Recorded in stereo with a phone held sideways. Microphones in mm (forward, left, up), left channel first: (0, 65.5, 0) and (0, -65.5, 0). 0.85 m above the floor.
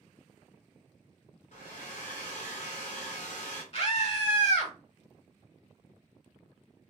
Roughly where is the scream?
Left.